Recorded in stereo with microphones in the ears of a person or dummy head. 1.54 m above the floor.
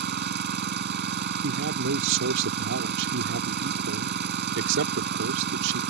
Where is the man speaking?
70° right (ahead or behind).